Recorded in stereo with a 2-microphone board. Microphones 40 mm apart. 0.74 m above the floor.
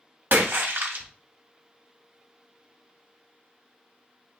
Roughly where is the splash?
Right.